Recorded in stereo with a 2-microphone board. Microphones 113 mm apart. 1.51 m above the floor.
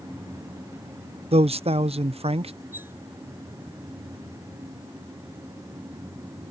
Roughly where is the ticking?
No ticking in this recording.